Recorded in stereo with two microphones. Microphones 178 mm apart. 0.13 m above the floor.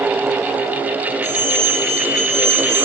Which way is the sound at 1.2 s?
45° left (ahead or behind).